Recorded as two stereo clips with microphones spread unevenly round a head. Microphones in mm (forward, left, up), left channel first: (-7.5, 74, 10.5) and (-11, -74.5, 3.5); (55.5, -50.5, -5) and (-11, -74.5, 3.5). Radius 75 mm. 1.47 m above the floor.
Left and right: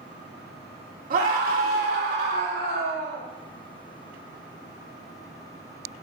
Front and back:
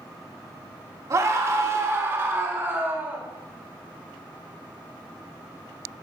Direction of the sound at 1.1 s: 125° right.